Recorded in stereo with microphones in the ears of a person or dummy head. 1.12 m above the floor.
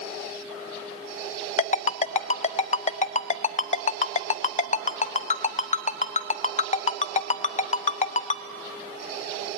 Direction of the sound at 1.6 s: 35° left (ahead or behind).